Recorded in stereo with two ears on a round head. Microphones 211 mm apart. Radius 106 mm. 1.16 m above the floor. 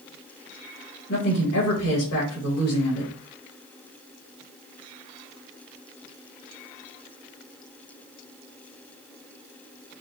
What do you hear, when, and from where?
1.1 s a woman speaking: 70° left (ahead or behind), 3 m